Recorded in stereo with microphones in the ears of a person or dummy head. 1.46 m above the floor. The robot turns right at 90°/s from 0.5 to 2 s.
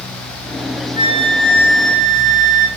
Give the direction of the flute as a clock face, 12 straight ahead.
5 o'clock.